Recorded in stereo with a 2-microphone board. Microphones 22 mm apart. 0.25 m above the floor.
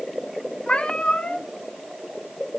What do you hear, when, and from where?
0.7 s a cat meowing: 70° left (ahead or behind), 1.8 m